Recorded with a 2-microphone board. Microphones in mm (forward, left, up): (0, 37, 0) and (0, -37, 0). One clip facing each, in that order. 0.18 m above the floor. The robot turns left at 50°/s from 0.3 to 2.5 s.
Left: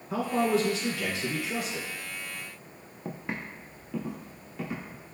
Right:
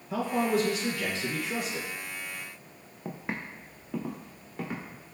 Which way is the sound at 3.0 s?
5° right (ahead or behind).